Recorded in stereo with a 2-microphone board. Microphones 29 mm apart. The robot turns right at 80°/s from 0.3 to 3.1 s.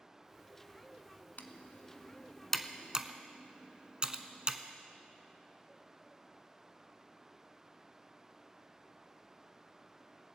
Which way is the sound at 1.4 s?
65° left (ahead or behind).